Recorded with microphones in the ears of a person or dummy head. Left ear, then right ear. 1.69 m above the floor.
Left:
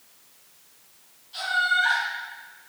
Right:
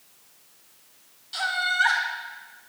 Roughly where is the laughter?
Right.